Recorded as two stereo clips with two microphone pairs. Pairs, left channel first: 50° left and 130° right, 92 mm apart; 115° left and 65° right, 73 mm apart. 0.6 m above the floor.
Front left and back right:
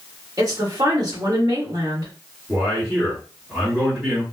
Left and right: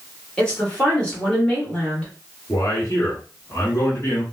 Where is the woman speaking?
175° right, 1.4 m.